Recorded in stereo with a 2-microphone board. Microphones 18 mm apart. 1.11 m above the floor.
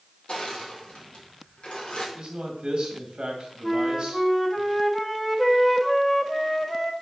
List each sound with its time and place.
0.3 s crushing: 75° left (ahead or behind), 1.9 m
2.1 s a man speaking: 50° right (ahead or behind), 2 m
3.6 s a flute: 10° left (ahead or behind), 0.7 m